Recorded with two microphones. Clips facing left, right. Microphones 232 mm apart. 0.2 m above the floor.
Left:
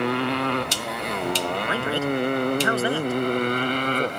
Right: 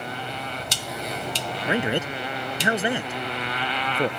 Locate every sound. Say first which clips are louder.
0.0 s a motorcycle: left 11 dB; 75° left (ahead or behind); by 4.2 s 45° left (ahead or behind)
1.7 s a man speaking: right 2 dB; 15° right (ahead or behind)